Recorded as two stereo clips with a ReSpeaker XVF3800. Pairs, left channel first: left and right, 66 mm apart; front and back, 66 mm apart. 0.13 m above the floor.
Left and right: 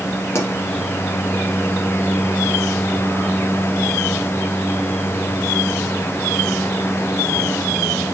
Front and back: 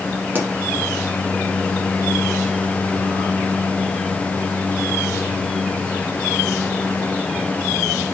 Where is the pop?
130° left, 2 m.